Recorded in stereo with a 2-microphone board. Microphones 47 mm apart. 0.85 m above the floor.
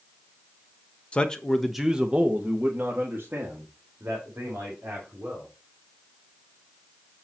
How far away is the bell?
No bell in this recording.